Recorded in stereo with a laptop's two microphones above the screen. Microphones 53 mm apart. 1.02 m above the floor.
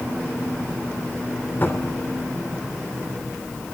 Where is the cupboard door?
40° left (ahead or behind), 3.5 m.